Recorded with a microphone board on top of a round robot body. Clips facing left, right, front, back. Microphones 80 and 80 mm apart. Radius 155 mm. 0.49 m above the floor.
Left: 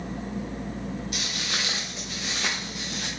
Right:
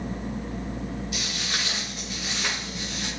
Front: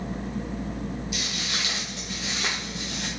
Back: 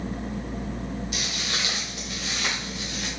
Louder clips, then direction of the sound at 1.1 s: Even, back 1 dB; 135° left.